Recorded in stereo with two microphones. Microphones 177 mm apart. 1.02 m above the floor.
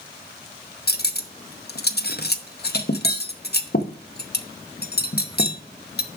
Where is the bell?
No bell in this recording.